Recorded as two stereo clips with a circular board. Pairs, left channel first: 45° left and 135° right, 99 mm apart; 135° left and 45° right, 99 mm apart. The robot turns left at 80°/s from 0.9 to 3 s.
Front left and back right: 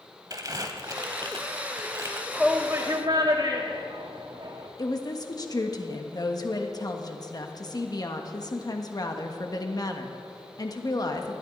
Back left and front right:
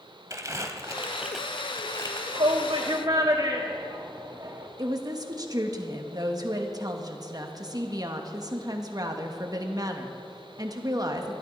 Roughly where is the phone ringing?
I don't hear a phone ringing.